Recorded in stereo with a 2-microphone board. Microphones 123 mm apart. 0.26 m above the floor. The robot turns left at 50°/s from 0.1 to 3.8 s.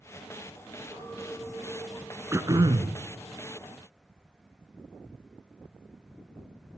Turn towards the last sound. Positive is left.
turn(degrees=-95)